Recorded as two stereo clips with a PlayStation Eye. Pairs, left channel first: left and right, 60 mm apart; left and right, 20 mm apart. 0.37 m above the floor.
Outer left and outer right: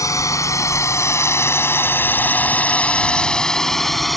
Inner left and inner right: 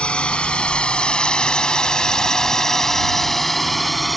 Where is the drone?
65° left (ahead or behind); by 4.2 s centre (ahead or behind).